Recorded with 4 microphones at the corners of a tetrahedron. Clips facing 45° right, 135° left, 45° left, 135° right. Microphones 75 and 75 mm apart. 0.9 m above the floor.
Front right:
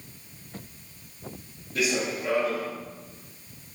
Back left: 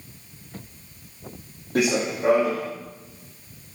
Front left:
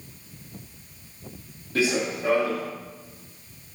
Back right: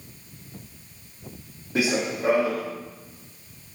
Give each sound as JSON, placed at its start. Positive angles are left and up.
{"t": 1.8, "sound": "running footsteps", "azimuth_deg": 155, "distance_m": 2.5}